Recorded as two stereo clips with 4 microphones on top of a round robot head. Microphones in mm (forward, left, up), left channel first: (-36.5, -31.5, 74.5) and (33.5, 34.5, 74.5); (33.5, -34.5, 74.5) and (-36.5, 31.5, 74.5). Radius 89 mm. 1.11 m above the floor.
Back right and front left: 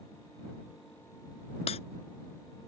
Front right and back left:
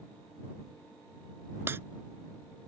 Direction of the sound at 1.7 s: 155° right.